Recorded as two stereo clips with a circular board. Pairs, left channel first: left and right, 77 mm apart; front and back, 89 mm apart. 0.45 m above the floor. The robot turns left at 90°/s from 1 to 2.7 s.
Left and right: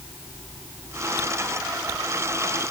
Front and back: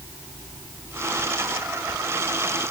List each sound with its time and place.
Only background noise.